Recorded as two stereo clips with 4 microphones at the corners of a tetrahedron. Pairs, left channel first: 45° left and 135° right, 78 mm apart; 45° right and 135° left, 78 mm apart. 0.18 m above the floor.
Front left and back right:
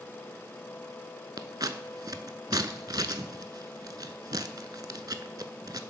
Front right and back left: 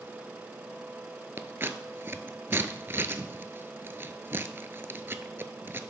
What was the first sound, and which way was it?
Scissors, 165° right.